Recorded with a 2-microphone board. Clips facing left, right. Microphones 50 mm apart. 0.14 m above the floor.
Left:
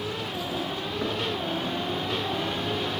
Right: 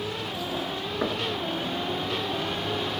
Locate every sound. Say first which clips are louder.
1.0 s knocking: right 2 dB; 25° right (ahead or behind), 1.4 m